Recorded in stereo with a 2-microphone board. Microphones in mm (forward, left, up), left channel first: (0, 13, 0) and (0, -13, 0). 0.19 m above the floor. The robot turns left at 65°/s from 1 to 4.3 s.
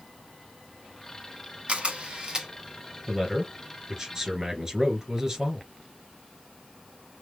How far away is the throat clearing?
No throat clearing in this recording.